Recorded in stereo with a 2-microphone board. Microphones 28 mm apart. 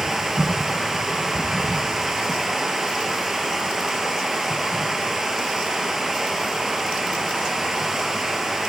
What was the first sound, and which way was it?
Running water, 15° right (ahead or behind).